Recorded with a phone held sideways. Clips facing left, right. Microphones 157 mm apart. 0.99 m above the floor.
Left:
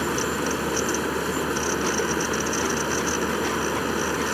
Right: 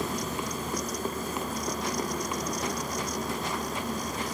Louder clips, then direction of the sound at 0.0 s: Left 7 dB; 85° left.